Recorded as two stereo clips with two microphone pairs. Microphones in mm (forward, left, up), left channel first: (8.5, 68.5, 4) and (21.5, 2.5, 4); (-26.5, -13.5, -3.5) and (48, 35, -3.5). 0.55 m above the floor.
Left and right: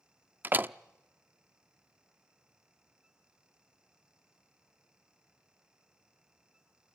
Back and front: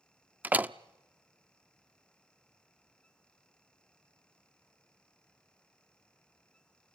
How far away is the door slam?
About 0.5 m.